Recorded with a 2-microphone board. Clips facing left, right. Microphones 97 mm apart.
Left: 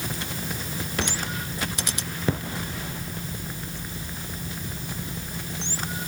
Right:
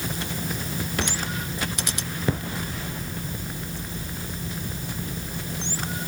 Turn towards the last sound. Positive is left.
No sound to turn to.